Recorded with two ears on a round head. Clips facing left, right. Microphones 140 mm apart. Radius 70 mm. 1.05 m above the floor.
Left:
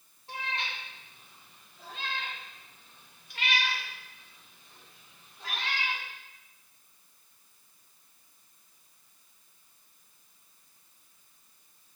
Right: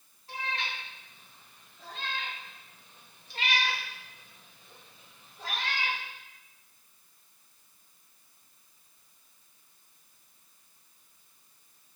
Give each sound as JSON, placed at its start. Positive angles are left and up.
{"t": 0.3, "sound": "a cat meowing", "side_deg": 25, "distance_m": 5.5}